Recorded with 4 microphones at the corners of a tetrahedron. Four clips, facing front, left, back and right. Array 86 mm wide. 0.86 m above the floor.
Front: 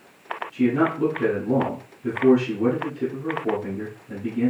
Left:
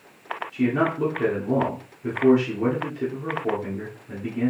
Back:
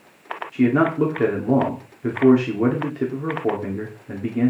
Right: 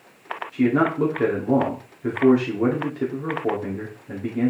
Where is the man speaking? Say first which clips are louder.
Right 3 dB, back 3 dB; 160° right, 2 m.